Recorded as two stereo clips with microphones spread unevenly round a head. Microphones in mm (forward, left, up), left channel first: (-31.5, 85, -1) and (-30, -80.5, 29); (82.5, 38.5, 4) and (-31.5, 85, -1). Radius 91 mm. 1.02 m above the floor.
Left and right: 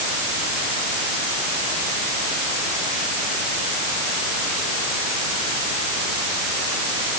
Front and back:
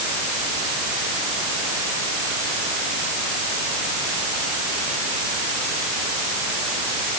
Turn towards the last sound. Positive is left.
No sound to turn to.